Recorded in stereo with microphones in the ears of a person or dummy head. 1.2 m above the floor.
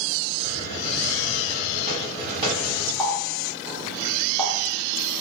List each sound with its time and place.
0.4 s a hiss: 40° right (ahead or behind), 1.3 m
3.0 s a running tap: 10° right (ahead or behind), 0.7 m